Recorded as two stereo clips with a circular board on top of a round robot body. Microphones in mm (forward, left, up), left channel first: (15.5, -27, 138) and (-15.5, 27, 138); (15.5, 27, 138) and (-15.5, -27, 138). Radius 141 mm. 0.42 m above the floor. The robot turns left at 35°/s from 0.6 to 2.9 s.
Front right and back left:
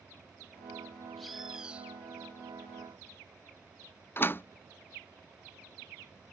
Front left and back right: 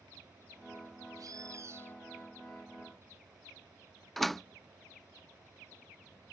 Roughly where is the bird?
Behind right.